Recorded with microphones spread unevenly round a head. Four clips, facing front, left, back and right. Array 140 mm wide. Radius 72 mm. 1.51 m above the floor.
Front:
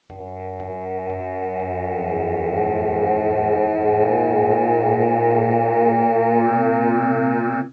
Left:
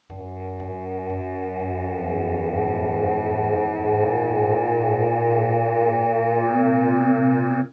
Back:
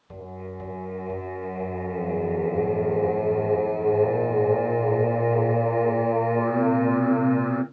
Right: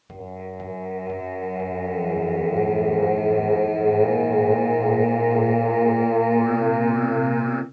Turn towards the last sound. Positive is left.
turn(degrees=-5)